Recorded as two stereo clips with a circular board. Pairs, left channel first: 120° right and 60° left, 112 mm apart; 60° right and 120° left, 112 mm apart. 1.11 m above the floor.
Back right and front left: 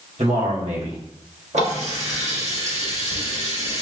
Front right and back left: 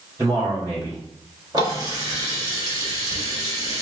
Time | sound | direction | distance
0.2 | a man speaking | 55° left | 1.8 m
1.5 | a running tap | 65° left | 1.4 m